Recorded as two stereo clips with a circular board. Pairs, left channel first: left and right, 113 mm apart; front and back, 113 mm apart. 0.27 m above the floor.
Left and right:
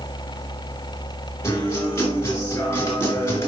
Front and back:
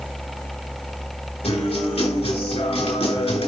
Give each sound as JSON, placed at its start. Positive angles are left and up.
{"t": 1.4, "sound": "a guitar", "azimuth_deg": 25, "distance_m": 3.0}